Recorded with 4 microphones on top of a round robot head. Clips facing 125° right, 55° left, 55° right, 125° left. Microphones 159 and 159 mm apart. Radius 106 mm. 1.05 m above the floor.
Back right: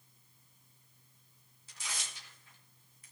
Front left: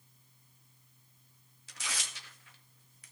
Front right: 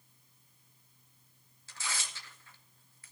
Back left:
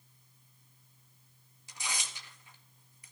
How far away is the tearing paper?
About 1.8 m.